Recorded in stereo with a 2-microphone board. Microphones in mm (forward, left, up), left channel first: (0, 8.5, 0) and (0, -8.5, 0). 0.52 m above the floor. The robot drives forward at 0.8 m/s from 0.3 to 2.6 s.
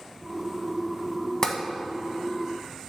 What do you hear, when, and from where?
1.4 s tapping: 35° left (ahead or behind), 0.7 m; by 1.6 s 40° left (ahead or behind), 0.6 m